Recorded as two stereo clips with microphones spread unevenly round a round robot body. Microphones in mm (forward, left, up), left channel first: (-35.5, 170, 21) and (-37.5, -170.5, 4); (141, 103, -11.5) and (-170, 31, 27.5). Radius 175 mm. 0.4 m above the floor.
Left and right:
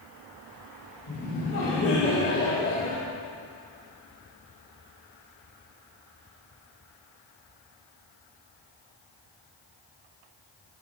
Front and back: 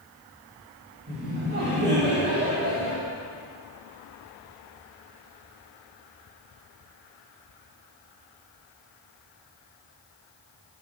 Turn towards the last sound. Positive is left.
turn(degrees=140)